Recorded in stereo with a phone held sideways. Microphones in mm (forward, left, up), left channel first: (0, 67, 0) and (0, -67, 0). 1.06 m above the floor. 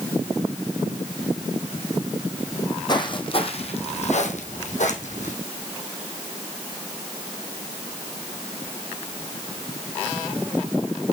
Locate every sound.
2.5 s footsteps: 25° left (ahead or behind), 2.5 m; by 5.3 s 60° left (ahead or behind), 2.5 m